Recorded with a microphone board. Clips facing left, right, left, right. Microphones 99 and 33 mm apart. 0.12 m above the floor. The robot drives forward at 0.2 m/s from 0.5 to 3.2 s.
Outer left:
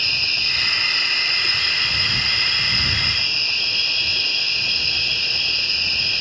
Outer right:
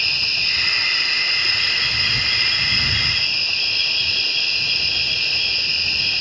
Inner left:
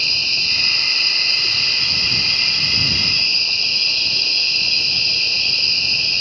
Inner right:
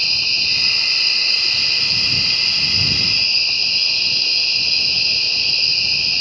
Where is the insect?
20° right (ahead or behind), 1.5 m; by 6.2 s 15° right (ahead or behind), 2.0 m.